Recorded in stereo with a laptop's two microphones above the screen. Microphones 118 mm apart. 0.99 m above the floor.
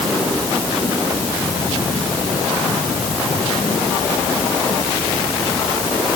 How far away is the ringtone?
I don't hear a ringtone.